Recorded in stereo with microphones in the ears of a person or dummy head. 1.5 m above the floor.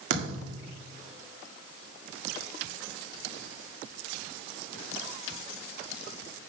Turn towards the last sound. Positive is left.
turn(degrees=-50)  # may be behind; listen again after turning